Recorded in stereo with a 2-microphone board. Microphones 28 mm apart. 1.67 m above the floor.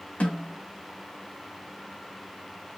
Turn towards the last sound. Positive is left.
turn(degrees=70)  # may be behind; listen again after turning